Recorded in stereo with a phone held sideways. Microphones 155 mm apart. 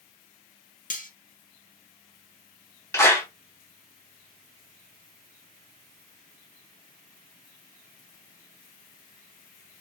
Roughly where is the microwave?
I don't hear a microwave.